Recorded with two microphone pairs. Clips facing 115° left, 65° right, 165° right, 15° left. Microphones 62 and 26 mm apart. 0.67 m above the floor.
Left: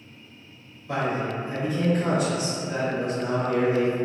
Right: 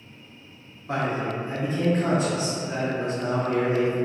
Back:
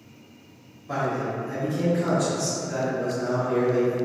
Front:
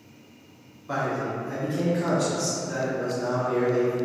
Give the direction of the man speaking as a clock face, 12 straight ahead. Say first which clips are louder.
Even, back 1 dB; 1 o'clock.